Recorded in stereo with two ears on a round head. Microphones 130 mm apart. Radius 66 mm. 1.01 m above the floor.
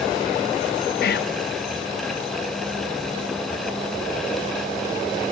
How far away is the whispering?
About 0.6 m.